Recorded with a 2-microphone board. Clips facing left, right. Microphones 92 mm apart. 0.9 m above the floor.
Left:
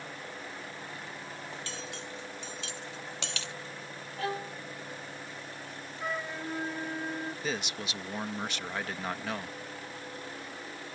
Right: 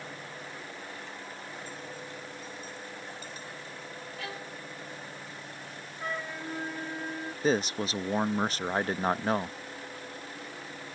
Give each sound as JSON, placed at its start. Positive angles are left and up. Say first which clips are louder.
{"t": 1.5, "sound": "cutlery clinking", "louder": "even", "side_deg": 80}
{"t": 4.2, "sound": "a violin", "louder": "left 8 dB", "side_deg": 35}
{"t": 6.0, "sound": "a flute", "louder": "even", "side_deg": 5}
{"t": 7.4, "sound": "a man speaking", "louder": "right 8 dB", "side_deg": -35}